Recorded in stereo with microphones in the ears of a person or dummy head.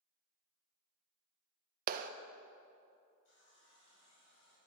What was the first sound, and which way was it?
A clap, 50° right (ahead or behind).